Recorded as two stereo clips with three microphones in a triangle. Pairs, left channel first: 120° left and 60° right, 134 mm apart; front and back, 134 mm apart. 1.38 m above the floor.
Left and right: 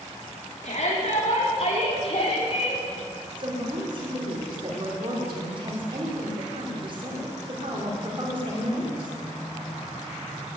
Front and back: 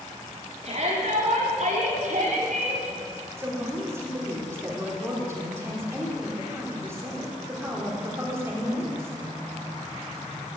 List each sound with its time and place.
0.6 s a shout: 150° left, 3.5 m; by 2.8 s 165° left, 5 m
3.4 s a woman speaking: 110° right, 5 m